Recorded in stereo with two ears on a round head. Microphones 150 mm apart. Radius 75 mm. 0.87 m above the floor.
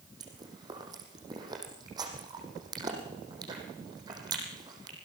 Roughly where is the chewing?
Right.